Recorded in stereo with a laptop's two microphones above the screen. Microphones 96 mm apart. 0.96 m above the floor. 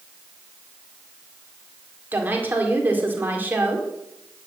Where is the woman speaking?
20° right (ahead or behind), 2 m.